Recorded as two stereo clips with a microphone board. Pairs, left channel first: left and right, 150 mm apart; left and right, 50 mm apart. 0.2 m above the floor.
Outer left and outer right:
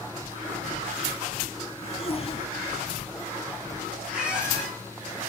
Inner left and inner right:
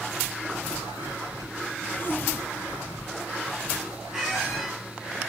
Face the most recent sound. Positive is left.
turn(degrees=-5)  # may be behind; listen again after turning